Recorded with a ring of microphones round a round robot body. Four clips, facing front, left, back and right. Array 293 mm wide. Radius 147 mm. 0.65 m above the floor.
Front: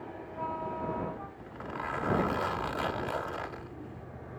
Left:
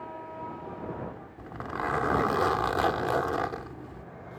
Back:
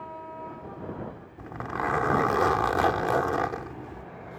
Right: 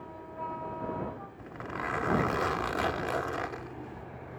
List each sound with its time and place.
1.4 s a zipper: 155° left